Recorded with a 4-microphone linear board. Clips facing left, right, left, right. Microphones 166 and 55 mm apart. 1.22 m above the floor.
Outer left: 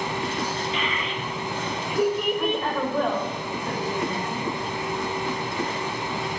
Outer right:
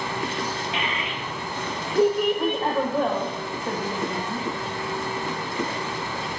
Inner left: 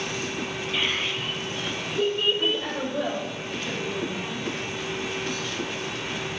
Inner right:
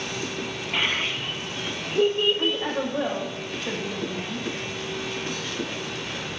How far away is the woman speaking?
About 0.9 m.